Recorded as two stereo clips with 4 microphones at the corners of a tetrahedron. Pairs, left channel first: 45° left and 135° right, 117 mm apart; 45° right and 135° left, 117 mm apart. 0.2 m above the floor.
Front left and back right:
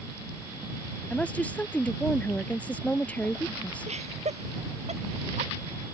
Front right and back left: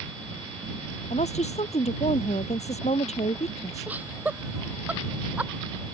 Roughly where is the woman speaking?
Ahead right.